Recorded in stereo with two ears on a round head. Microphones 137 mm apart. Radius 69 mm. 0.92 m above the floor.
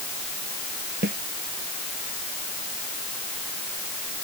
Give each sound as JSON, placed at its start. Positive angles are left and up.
{"t": 1.0, "sound": "a snare drum", "side_deg": -70}